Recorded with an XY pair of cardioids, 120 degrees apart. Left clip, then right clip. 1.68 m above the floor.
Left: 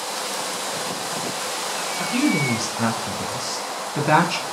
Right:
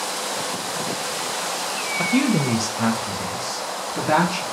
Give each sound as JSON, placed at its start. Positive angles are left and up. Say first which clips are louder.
{"t": 2.0, "sound": "a woman speaking", "louder": "right 1 dB", "azimuth_deg": -45, "distance_m": 0.5}